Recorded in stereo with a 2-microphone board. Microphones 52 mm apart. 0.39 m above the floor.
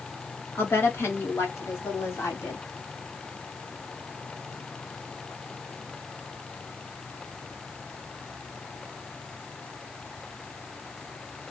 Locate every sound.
0.6 s a woman speaking: 45° left (ahead or behind), 1.8 m; by 2.6 s 65° left (ahead or behind), 2.5 m